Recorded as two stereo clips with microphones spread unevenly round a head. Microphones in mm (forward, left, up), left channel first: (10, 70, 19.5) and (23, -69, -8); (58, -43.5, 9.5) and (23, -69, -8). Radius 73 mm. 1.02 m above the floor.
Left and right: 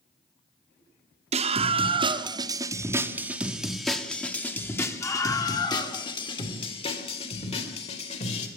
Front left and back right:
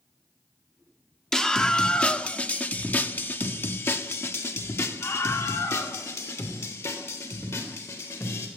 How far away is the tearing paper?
No tearing paper in this recording.